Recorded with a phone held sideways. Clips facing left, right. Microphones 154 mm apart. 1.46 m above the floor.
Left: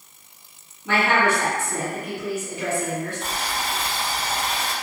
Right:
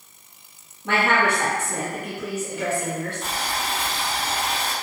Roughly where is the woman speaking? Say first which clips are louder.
Left 1 dB; right.